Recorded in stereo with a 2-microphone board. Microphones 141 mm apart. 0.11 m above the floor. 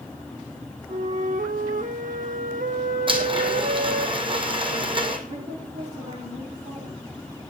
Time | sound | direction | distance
0.9 | a flute | 70° right (ahead or behind) | 0.8 m
3.1 | a blender | 35° right (ahead or behind) | 1.6 m
5.3 | a woman speaking | 50° right (ahead or behind) | 8 m